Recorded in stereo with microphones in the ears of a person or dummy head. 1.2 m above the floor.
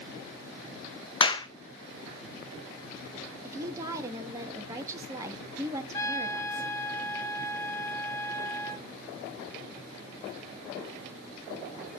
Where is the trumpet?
20° left (ahead or behind), 1.1 m.